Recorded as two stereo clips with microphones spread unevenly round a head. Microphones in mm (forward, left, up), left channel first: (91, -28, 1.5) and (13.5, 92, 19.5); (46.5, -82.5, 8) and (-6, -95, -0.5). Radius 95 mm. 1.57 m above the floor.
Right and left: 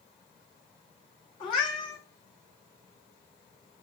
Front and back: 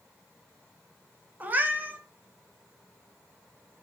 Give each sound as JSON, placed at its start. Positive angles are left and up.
{"t": 1.4, "sound": "a cat meowing", "azimuth_deg": -115, "distance_m": 1.2}